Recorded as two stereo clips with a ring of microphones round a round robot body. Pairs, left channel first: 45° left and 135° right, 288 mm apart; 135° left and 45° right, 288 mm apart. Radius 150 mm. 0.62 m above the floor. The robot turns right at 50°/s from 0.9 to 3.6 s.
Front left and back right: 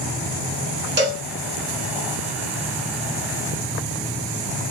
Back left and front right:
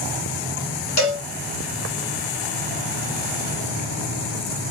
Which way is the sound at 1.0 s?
170° left.